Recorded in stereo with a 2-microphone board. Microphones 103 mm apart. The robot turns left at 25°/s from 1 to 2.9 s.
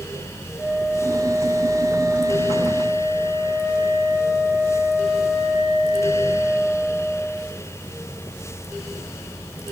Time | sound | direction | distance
0.6 | a flute | 155° left | 10 m